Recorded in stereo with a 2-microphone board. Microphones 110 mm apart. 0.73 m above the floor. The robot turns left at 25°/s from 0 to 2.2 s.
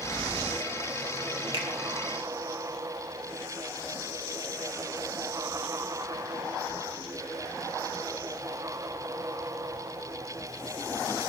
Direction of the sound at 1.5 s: 50° right (ahead or behind).